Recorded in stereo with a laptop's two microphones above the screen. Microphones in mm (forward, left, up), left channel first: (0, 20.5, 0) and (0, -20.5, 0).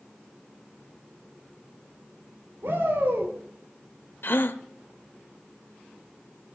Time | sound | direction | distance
2.6 | a shout | 60° right (ahead or behind) | 3 m
4.2 | a gasp | 60° left (ahead or behind) | 1.0 m